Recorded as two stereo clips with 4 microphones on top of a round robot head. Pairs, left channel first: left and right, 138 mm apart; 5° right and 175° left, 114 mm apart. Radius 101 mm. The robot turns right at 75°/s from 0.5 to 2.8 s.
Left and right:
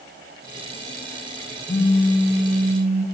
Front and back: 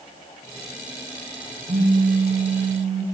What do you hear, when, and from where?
1.7 s a phone buzzing: 145° left, 3.5 m; by 3.0 s 130° right, 3.5 m